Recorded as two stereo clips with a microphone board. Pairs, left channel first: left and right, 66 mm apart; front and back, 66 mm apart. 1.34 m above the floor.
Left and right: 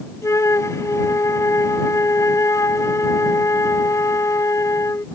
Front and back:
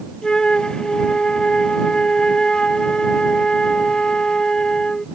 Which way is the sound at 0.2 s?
75° left.